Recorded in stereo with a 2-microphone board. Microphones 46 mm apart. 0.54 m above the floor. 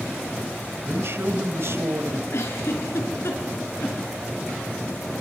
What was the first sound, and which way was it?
A man speaking, 60° right (ahead or behind).